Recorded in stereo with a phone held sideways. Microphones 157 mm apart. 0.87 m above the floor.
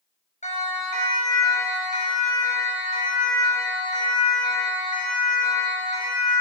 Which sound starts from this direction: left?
A siren, at 0.4 s.